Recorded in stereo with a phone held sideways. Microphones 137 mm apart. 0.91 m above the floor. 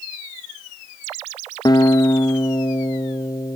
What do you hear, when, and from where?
1.6 s a guitar: 30° left (ahead or behind), 0.7 m